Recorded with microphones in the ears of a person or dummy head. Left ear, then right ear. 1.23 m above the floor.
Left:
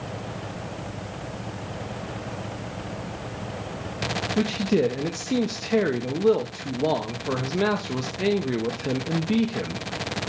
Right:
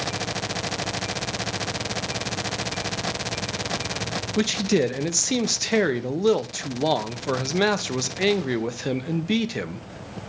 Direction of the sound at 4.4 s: 40° right (ahead or behind).